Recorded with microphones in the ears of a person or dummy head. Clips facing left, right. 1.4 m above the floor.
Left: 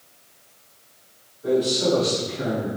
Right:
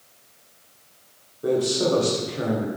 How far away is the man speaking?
About 1.2 m.